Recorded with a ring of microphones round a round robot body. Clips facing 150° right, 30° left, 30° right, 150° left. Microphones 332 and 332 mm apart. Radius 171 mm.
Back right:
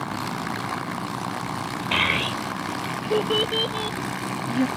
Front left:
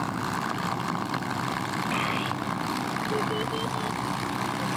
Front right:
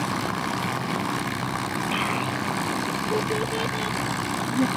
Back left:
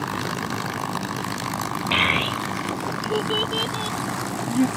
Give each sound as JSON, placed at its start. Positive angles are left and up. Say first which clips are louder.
{"t": 1.9, "sound": "a child speaking", "louder": "back right 2 dB, back left 1 dB", "azimuth_deg": 175}